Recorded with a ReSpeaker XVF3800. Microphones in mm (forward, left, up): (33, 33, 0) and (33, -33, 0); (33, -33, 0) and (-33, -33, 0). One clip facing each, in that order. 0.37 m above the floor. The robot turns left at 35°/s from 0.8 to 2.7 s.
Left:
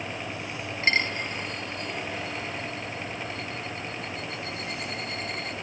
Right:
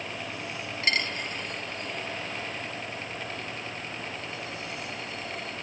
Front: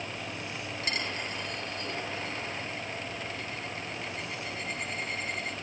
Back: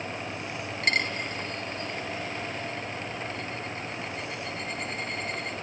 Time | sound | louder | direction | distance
0.8 | a dropped coin | left 4 dB, back 7 dB | 150° left | 1.2 m